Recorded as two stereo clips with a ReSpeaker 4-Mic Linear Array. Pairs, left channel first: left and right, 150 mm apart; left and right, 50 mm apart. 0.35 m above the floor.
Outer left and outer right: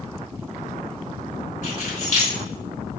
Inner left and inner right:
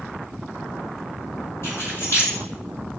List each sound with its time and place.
1.6 s keys jangling: 55° left (ahead or behind), 1.3 m